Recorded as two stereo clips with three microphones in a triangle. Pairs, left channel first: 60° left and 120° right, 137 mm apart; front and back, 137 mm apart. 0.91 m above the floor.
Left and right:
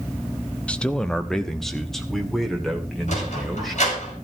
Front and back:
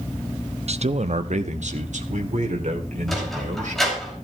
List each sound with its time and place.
0.7 s a man speaking: 140° left, 0.7 m; by 4.0 s 150° left, 3.5 m
3.1 s a sliding door: 90° left, 5.5 m